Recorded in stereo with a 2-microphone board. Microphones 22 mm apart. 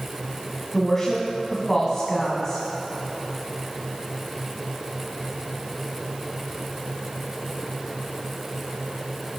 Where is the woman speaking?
20° left (ahead or behind), 1.1 m.